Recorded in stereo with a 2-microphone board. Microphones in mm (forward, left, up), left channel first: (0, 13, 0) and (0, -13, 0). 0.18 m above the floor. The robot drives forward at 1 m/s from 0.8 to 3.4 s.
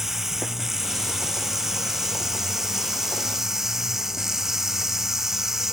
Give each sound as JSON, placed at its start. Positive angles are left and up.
{"t": 0.0, "sound": "running water", "side_deg": -10}